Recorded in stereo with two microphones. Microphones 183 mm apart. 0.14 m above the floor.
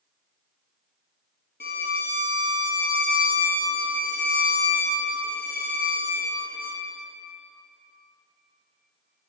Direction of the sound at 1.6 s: 60° left (ahead or behind).